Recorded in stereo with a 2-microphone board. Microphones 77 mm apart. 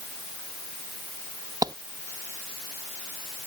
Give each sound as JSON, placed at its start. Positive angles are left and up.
{"t": 1.6, "sound": "a clap", "side_deg": -55}